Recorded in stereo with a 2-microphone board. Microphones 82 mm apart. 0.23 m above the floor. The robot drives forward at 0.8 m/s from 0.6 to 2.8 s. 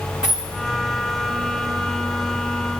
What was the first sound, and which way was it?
A dropped coin, 10° right (ahead or behind).